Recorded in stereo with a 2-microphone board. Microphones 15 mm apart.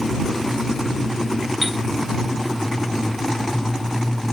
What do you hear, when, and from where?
1.6 s a chime: 10° right (ahead or behind)